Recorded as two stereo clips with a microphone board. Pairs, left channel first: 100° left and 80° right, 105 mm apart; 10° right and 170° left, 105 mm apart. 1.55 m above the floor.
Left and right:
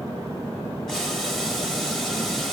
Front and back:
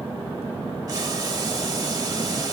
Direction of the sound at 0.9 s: 175° right.